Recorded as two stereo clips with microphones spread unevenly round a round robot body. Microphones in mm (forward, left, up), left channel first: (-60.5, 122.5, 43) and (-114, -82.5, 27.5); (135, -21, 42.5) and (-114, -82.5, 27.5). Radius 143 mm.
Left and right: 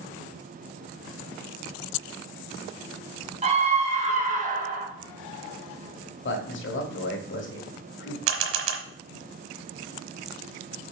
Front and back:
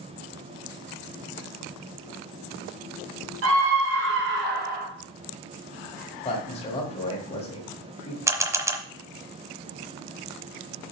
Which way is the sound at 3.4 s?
155° right.